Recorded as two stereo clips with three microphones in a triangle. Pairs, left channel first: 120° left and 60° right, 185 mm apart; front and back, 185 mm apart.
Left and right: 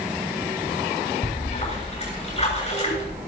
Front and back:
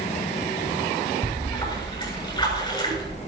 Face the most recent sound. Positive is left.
turn(degrees=65)